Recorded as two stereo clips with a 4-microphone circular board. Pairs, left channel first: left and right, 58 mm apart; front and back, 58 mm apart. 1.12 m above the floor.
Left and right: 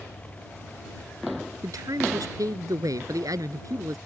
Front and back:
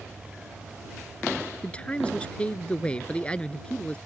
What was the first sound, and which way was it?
A man speaking, 70° right.